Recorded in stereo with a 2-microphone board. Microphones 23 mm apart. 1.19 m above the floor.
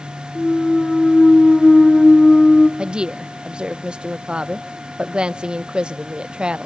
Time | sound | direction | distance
0.3 | a clunk | 55° left (ahead or behind) | 1.5 m
2.8 | a woman speaking | 50° right (ahead or behind) | 0.6 m